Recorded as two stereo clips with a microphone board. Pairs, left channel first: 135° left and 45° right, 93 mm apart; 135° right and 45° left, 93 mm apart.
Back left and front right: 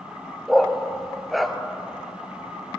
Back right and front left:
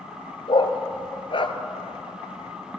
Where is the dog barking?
135° right, 1.1 m.